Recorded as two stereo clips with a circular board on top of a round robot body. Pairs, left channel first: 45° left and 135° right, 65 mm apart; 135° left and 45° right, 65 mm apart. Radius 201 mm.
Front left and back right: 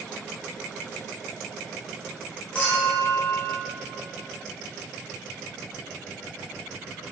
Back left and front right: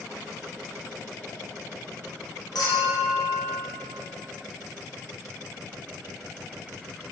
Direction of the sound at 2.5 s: 115° left.